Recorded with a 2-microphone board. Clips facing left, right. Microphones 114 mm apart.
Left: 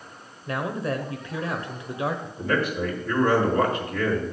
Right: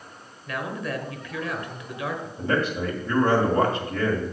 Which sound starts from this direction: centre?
A man speaking, at 2.4 s.